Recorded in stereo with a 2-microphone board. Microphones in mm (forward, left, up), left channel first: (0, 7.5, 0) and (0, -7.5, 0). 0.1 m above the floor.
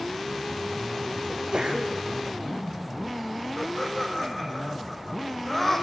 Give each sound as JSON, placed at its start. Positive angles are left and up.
{"t": 1.3, "sound": "a sneeze", "side_deg": -65, "distance_m": 5.5}
{"t": 3.6, "sound": "laughter", "side_deg": 15, "distance_m": 4.5}